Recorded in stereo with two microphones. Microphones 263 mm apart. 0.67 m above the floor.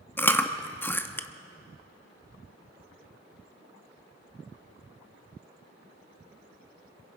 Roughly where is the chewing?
Centre.